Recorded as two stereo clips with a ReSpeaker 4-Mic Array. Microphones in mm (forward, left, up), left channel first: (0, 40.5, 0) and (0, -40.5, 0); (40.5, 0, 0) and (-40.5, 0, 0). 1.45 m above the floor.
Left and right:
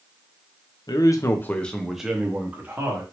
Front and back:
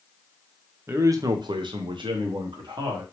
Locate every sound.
0.9 s a man speaking: 120° left, 0.6 m; by 3.0 s 155° right, 1.2 m